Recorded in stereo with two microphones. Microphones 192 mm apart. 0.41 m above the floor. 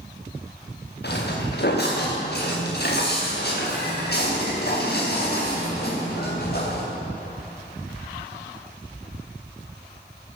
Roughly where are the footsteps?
Left.